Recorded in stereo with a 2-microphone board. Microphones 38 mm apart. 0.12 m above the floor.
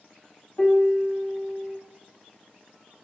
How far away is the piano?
About 1.3 m.